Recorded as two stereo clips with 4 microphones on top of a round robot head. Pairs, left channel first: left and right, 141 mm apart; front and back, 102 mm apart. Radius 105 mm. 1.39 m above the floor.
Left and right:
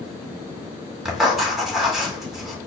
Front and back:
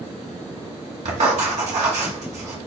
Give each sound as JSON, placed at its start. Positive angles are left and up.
{"t": 1.1, "sound": "writing", "azimuth_deg": -175, "distance_m": 1.2}